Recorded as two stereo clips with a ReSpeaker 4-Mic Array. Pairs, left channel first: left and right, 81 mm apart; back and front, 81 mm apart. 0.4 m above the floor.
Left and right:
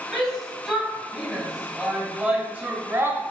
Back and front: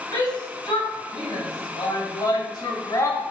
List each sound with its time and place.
0.1 s a shout: straight behind, 3.5 m; by 3.2 s 140° right, 1.6 m